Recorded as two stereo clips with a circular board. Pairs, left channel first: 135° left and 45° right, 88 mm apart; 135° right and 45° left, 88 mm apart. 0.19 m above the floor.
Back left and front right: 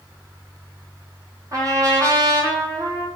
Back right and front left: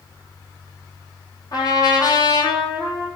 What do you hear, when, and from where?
1.5 s a trumpet: 95° right, 1.1 m